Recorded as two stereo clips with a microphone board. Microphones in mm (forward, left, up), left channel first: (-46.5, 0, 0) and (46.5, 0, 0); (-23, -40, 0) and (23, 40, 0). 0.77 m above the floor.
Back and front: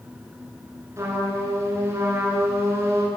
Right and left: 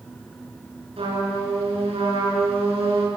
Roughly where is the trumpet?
Ahead left.